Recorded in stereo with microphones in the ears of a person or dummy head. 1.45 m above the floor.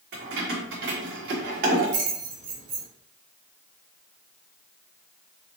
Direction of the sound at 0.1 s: 50° right (ahead or behind).